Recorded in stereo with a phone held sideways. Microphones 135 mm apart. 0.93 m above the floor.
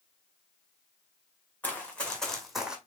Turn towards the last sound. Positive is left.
turn(degrees=-5)  # may be behind; listen again after turning